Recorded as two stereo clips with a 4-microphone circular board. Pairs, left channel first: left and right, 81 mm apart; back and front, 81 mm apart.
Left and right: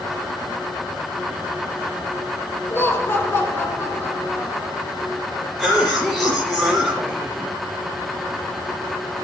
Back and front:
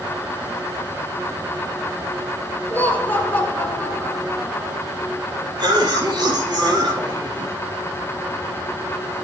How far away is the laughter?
About 1.2 m.